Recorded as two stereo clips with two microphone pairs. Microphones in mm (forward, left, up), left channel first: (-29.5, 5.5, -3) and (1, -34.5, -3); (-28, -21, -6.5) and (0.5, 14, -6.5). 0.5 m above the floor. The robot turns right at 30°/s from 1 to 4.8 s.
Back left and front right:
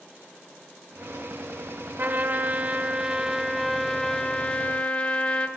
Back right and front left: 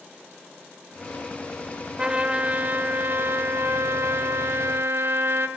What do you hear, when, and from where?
2.0 s a trumpet: 20° right, 0.9 m; by 5.5 s 65° left, 0.9 m